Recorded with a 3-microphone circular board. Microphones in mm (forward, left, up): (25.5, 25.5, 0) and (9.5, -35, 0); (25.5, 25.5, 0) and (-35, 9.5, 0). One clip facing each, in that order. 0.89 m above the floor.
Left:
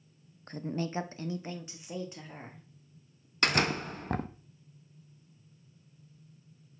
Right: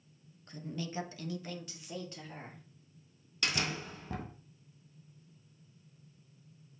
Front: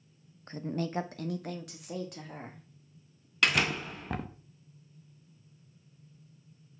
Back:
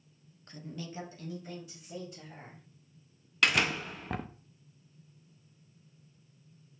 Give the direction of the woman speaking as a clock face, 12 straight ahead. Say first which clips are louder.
Left 6 dB, front 9 dB; 10 o'clock.